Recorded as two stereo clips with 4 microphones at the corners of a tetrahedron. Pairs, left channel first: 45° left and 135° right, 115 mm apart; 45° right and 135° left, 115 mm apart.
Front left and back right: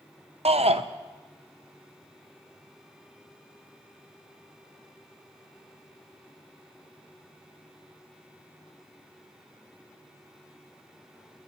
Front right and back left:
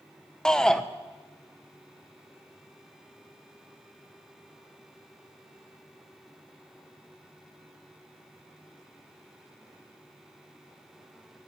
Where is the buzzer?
No buzzer in this recording.